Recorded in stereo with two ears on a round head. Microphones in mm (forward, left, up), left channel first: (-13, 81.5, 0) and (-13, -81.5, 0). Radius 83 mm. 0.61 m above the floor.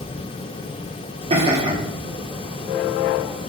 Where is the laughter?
35° right (ahead or behind), 1.3 m.